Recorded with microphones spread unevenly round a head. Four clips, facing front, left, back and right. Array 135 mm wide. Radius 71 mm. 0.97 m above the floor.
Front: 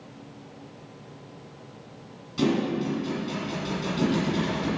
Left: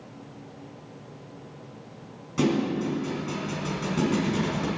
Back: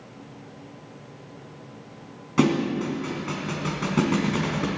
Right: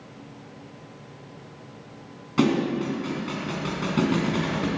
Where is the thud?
150° right, 3 m.